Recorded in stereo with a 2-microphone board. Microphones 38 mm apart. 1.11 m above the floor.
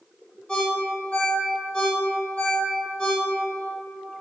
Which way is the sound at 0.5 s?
25° left (ahead or behind).